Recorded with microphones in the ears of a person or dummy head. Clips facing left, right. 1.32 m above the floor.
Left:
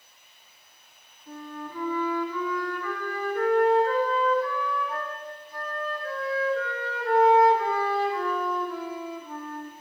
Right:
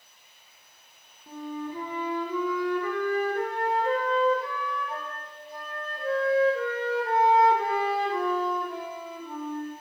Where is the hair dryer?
I don't hear a hair dryer.